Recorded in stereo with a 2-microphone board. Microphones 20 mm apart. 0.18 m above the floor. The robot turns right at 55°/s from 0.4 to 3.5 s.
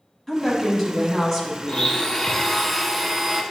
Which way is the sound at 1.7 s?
125° left.